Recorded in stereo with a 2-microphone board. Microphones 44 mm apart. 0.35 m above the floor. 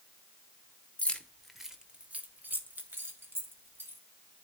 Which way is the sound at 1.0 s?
30° left (ahead or behind).